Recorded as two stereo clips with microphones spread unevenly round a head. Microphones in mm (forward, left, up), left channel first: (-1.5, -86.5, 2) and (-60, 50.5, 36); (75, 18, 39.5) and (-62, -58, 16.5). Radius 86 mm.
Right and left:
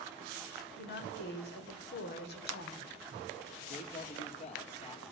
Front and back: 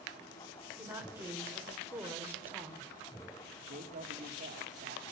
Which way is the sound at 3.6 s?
110° right.